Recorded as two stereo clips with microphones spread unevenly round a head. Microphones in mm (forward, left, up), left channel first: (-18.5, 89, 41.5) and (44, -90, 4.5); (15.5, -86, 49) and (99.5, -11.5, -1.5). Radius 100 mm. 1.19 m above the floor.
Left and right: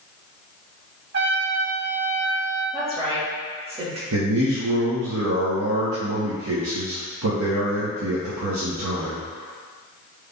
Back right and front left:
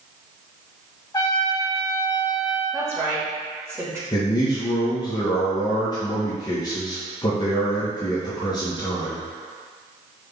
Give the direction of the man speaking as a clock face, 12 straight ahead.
3 o'clock.